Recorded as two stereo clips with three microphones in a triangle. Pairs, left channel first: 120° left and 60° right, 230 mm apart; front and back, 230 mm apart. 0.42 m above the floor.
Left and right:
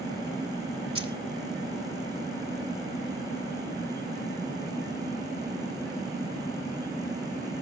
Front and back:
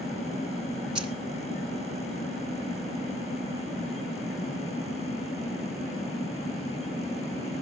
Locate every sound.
0.9 s keys jangling: 95° left, 2.5 m